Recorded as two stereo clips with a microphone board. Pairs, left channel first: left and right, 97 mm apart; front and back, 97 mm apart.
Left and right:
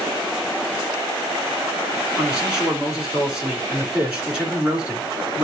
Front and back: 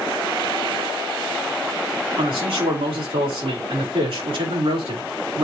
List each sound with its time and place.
2.2 s a man speaking: 170° right, 4 m